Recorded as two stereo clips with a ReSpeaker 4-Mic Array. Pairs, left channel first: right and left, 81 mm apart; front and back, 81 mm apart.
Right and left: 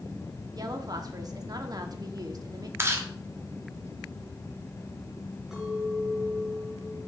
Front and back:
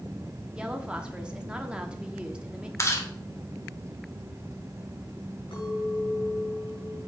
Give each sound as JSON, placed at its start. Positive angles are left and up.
{"t": 0.6, "sound": "a woman speaking", "azimuth_deg": 105, "distance_m": 1.2}
{"t": 2.8, "sound": "chewing", "azimuth_deg": 40, "distance_m": 1.3}
{"t": 5.5, "sound": "a clink", "azimuth_deg": 5, "distance_m": 6.0}